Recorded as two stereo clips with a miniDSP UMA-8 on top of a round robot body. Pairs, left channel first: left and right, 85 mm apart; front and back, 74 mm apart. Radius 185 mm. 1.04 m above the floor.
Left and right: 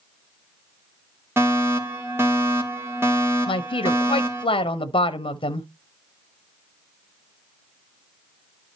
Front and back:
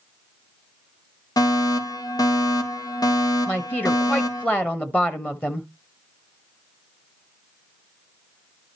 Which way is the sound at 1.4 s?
30° right.